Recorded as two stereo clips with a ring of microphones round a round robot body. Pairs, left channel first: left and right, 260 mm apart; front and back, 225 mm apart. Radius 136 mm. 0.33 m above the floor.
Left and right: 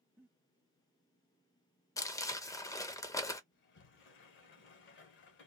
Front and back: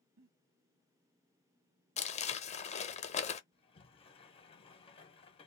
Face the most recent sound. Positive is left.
turn(degrees=60)